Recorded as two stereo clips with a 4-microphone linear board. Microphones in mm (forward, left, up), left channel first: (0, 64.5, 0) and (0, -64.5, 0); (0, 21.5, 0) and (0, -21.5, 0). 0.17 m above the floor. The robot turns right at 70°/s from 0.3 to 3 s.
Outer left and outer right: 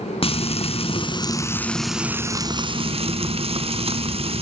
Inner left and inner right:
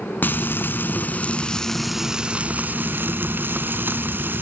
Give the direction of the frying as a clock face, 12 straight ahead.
10 o'clock.